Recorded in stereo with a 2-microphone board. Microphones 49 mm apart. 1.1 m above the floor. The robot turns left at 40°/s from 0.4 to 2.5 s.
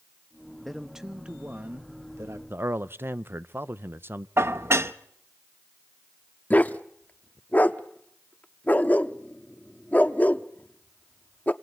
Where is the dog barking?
30° left (ahead or behind), 0.7 m.